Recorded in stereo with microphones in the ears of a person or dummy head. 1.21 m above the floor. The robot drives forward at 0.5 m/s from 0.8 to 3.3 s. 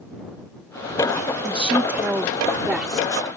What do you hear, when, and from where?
1.4 s a woman speaking: 5° right (ahead or behind)